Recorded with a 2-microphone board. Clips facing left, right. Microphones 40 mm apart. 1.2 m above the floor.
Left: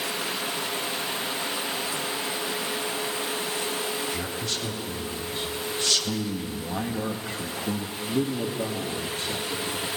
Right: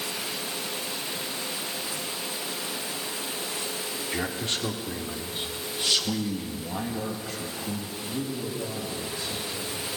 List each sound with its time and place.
4.1 s a man speaking: 45° right (ahead or behind), 3.5 m; by 9.9 s 70° left (ahead or behind), 3.5 m